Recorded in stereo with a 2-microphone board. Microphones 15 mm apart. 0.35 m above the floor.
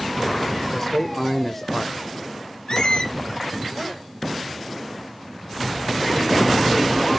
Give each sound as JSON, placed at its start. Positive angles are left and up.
{"t": 0.7, "sound": "a man speaking", "side_deg": 20, "distance_m": 0.9}
{"t": 2.7, "sound": "a squeak", "side_deg": 60, "distance_m": 1.5}